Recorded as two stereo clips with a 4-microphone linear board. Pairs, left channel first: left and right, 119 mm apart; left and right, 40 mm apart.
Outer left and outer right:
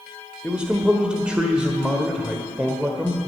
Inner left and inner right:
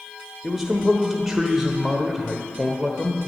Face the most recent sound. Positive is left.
turn(degrees=-10)  # may be behind; listen again after turning